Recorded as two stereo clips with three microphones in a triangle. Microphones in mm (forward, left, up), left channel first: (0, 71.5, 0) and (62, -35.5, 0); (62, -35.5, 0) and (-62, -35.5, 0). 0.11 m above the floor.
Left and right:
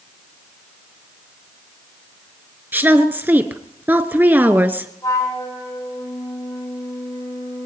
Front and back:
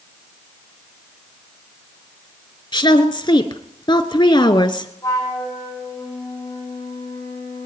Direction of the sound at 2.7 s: 5° left.